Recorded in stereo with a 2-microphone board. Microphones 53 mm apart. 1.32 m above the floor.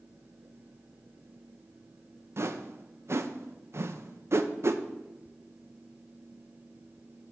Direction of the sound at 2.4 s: 50° right (ahead or behind).